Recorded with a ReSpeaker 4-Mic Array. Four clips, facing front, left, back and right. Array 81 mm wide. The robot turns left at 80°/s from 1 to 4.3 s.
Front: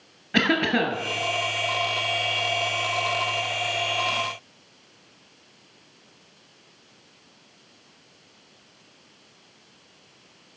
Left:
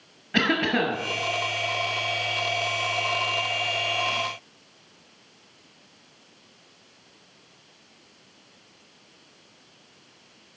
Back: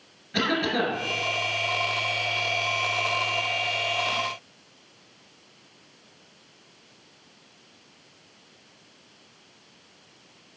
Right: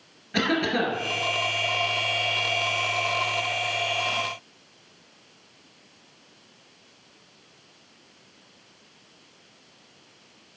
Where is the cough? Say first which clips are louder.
Left 1 dB, front 3 dB; 25° left, 1.5 m.